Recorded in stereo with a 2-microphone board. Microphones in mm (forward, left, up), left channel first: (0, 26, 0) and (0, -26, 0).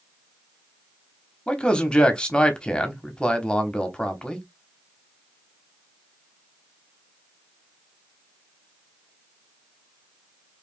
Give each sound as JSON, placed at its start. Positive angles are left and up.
{"t": 1.5, "sound": "a man speaking", "side_deg": 20, "distance_m": 0.9}